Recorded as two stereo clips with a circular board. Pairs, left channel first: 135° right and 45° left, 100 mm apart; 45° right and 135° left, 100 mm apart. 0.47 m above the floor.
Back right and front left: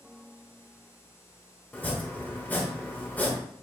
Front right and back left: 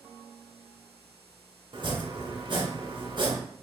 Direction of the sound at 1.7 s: 155° left.